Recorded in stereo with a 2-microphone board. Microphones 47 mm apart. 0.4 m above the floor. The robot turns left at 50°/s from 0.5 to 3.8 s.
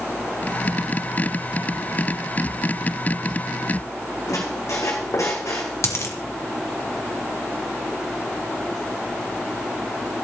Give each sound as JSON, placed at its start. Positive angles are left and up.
{"t": 4.3, "sound": "a squeak", "side_deg": 80, "distance_m": 2.0}
{"t": 5.8, "sound": "a dropped coin", "side_deg": 65, "distance_m": 1.9}